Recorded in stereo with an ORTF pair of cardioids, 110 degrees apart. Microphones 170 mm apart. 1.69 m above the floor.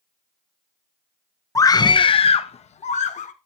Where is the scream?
20° left, 0.8 m; by 3.3 s 50° left, 1.6 m.